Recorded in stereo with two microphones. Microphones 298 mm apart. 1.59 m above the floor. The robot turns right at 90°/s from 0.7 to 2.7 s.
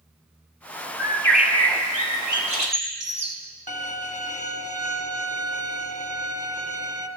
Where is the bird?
145° left, 1.9 m; by 3.4 s 60° right, 1.9 m.